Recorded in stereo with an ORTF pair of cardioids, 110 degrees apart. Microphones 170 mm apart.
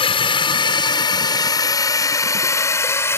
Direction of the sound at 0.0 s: 30° left.